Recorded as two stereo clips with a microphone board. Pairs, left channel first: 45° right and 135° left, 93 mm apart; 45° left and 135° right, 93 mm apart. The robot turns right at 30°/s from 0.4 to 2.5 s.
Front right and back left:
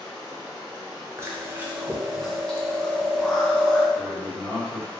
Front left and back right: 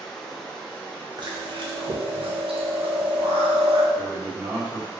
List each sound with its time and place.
0.0 s running water: 35° right, 0.9 m; by 5.0 s 25° left, 0.9 m
1.2 s chewing: 165° right, 0.5 m; by 3.9 s 125° right, 0.5 m
4.0 s a man speaking: 90° right, 1.1 m